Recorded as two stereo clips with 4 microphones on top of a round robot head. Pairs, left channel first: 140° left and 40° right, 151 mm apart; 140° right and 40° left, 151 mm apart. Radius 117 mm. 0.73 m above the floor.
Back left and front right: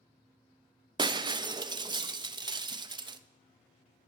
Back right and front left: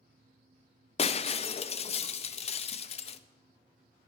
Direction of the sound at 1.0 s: 95° right.